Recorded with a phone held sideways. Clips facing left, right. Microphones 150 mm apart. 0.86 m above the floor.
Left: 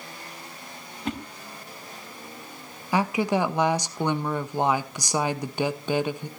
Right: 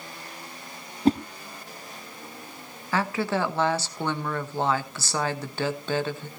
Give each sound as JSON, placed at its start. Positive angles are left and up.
{"t": 1.1, "sound": "a whoosh", "side_deg": -35, "distance_m": 0.9}
{"t": 2.9, "sound": "a woman speaking", "side_deg": 15, "distance_m": 0.9}